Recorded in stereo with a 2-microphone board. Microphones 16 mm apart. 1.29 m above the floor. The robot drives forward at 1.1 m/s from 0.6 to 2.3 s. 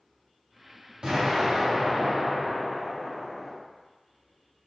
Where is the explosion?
55° right (ahead or behind), 1.6 m; by 3.5 s 40° right (ahead or behind), 2 m.